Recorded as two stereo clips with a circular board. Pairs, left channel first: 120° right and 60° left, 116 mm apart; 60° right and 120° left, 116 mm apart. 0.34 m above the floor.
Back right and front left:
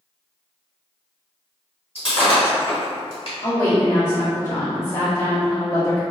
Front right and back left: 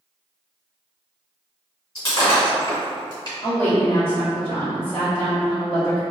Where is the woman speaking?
95° right, 1.5 m.